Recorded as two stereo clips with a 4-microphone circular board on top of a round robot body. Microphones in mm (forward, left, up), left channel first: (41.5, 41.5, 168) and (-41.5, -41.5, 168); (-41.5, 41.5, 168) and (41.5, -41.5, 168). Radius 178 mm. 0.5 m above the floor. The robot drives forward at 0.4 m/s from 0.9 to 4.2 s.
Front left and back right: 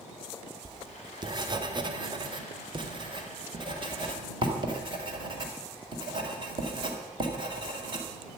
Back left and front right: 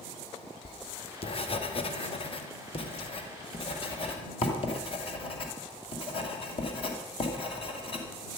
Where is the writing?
170° left, 1.1 m; by 8.4 s 175° left, 2.5 m.